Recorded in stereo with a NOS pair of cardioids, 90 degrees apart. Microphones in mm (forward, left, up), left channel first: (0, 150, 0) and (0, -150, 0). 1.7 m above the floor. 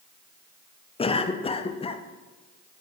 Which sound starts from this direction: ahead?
A cough, at 1.0 s.